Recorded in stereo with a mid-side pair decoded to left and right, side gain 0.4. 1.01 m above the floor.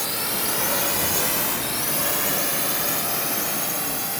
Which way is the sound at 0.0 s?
10° left.